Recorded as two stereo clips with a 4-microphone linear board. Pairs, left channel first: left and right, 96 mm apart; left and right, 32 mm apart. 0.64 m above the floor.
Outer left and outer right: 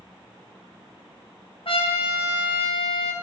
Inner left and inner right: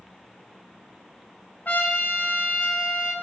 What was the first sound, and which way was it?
A trumpet, 75° left (ahead or behind).